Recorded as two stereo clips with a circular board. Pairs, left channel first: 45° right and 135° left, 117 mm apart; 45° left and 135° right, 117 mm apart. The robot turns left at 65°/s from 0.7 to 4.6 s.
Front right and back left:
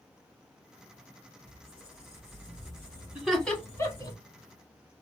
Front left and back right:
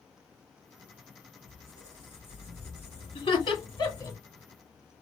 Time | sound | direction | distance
1.4 | a squeak | 130° left | 2 m
3.1 | laughter | 55° left | 1.4 m